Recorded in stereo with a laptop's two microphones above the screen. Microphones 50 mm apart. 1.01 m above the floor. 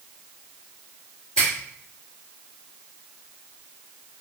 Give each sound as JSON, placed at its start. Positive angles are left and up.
{"t": 1.4, "sound": "a finger snap", "side_deg": 15, "distance_m": 1.6}